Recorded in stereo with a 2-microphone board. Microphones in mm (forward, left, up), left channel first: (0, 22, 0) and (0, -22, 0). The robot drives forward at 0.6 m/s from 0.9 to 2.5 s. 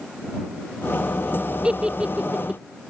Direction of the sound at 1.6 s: 20° right (ahead or behind).